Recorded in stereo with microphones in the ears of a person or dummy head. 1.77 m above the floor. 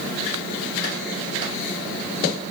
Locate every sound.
Only background noise.